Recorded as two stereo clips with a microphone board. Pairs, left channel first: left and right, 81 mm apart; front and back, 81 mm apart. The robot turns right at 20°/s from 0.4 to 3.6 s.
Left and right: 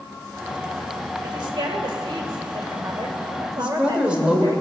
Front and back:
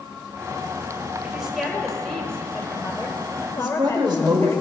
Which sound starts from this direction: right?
A woman speaking, at 1.2 s.